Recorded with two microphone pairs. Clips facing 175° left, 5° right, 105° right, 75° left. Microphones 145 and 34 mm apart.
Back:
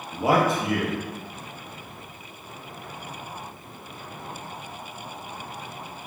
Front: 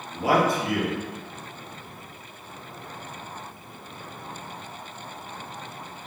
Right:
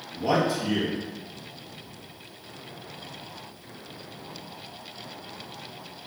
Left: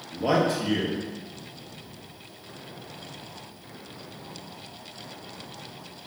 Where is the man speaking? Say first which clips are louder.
Back 1 dB, left 1 dB; 110° left, 0.8 m.